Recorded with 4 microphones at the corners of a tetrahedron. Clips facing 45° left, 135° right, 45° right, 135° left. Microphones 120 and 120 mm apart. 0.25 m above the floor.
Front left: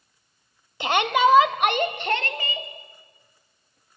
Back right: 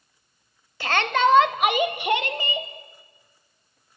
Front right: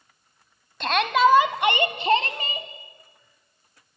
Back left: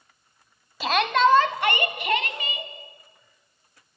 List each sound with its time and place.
0.8 s a shout: 60° left, 1.3 m; by 2.7 s 75° right, 1.7 m